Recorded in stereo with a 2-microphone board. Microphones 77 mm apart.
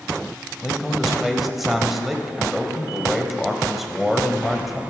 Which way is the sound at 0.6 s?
Centre (ahead or behind).